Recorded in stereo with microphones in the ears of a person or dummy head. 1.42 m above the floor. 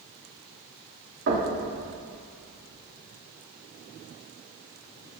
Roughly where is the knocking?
Right.